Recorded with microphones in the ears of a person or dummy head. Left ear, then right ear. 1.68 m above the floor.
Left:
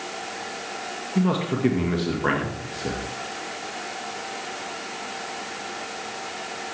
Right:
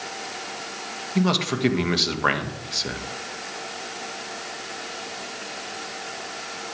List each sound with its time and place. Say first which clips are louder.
1.1 s a man speaking: right 2 dB; 35° right (ahead or behind), 1.8 m